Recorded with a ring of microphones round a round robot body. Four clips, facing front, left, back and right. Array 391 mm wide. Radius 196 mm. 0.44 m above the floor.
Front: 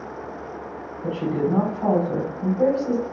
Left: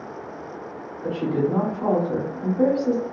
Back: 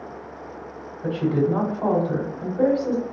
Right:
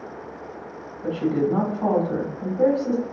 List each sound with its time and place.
1.0 s a woman speaking: 175° left, 1.9 m